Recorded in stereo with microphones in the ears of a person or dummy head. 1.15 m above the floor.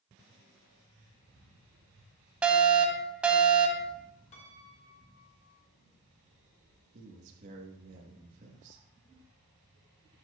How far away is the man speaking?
About 1.2 m.